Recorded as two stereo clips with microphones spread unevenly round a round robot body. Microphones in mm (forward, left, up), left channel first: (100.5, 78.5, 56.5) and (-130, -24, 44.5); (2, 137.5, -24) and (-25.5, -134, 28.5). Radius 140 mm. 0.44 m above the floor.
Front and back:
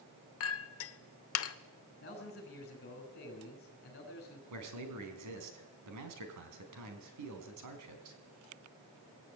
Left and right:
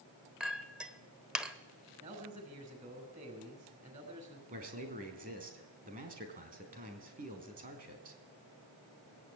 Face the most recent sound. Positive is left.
turn(degrees=-160)